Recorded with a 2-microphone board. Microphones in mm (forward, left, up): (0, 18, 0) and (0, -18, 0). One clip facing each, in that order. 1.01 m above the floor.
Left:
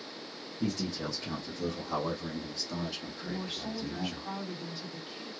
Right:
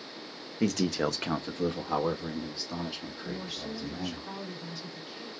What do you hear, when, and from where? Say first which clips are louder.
0.6 s a man speaking: right 6 dB; 80° right, 0.8 m; by 4.2 s 5° left (ahead or behind), 2.5 m
3.2 s a woman speaking: left 1 dB; 40° left (ahead or behind), 3 m